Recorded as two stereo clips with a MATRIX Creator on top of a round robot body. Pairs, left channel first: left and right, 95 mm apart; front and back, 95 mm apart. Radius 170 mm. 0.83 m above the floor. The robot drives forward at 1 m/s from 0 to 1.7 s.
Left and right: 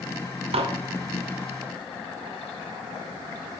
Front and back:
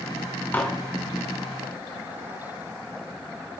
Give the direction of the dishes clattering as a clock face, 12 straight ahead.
2 o'clock.